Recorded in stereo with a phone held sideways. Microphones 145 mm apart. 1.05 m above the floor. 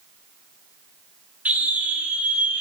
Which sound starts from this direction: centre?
A scream, at 1.4 s.